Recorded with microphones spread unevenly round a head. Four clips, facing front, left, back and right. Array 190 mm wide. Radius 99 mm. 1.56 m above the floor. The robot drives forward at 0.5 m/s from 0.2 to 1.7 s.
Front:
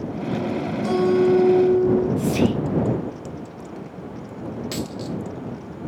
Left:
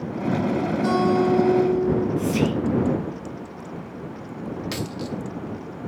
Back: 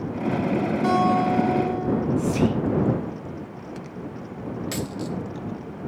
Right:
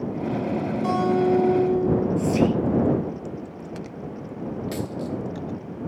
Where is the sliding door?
I don't hear a sliding door.